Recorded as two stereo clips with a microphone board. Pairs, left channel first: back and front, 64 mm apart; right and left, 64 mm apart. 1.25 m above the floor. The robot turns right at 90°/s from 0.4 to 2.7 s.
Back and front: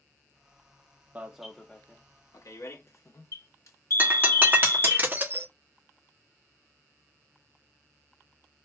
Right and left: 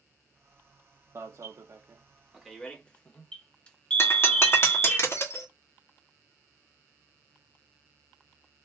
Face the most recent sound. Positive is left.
turn(degrees=-50)